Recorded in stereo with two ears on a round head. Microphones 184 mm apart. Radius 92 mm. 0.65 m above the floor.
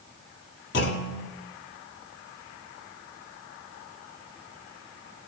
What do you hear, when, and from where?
0.7 s a clunk: 60° left (ahead or behind), 1.3 m